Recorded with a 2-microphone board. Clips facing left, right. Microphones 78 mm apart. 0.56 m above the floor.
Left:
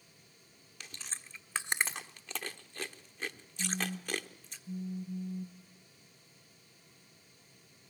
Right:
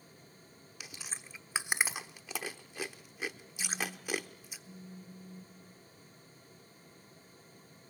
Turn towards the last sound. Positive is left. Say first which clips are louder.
# left 2 dB
turn(degrees=25)  # may be behind; listen again after turning